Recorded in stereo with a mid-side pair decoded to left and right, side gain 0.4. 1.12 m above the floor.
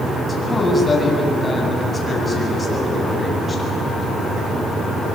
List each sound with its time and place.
0.3 s a man speaking: 35° left, 8 m